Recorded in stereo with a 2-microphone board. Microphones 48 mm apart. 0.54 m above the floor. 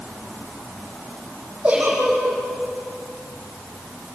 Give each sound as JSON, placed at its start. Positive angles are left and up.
{"t": 1.6, "sound": "a giggle", "side_deg": -30, "distance_m": 9.0}